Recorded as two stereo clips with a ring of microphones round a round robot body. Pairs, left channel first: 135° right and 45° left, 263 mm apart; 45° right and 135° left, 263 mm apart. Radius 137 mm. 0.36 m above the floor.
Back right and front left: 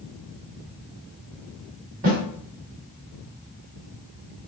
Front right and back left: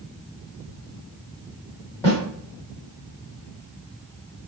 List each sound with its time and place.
2.0 s a snare drum: 30° left, 1.9 m